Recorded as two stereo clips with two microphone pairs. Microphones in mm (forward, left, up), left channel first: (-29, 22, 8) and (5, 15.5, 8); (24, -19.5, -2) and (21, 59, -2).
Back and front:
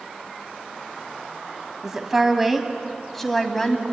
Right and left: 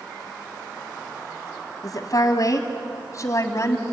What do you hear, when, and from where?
1.8 s a woman speaking: 85° right, 2.5 m; by 3.8 s 125° right, 2 m